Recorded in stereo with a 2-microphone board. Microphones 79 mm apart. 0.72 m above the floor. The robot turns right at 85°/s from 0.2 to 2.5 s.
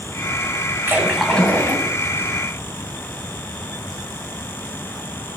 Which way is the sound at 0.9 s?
35° right.